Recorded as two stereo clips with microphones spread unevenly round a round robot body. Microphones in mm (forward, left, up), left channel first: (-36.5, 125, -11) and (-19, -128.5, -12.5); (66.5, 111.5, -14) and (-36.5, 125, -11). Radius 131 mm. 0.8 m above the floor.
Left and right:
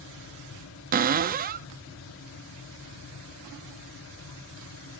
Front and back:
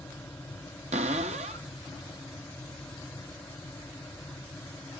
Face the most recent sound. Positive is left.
turn(degrees=-145)